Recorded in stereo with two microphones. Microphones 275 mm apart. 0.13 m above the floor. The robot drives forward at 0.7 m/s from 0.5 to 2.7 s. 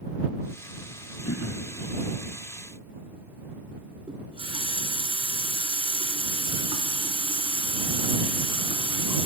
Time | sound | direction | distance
1.2 | throat clearing | 55° left (ahead or behind) | 1.0 m
4.1 | a running tap | 20° right (ahead or behind) | 0.9 m